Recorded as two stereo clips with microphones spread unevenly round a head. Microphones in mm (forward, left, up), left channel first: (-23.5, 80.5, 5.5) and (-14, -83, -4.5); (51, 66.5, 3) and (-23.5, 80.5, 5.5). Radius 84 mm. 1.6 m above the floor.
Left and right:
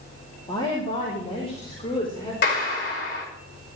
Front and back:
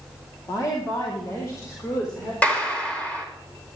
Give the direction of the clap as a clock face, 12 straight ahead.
10 o'clock.